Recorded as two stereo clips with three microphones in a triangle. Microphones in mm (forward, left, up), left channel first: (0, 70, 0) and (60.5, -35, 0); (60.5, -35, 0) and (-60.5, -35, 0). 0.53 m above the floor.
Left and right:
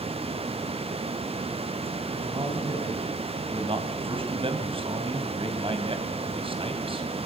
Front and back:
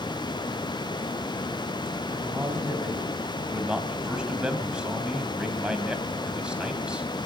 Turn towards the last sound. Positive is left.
turn(degrees=-95)